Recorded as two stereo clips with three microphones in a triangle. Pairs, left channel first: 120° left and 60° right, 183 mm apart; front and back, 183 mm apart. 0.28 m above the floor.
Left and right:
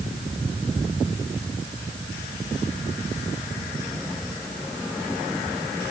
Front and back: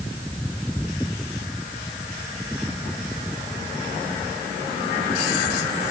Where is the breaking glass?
No breaking glass in this recording.